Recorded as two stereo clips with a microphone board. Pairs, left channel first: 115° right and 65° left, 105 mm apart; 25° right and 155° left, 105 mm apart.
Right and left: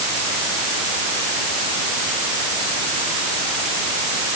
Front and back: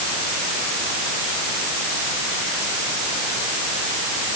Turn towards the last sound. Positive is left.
No sound to turn to.